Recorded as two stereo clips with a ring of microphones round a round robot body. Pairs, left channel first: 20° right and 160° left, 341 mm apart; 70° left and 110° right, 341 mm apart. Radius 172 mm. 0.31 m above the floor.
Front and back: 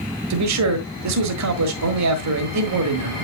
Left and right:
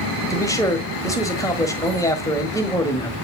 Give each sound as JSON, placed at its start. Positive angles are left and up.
{"t": 0.3, "sound": "a man speaking", "azimuth_deg": 145, "distance_m": 1.4}